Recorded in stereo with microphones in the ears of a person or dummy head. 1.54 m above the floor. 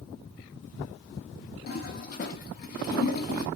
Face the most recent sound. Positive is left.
turn(degrees=50)  # may be behind; listen again after turning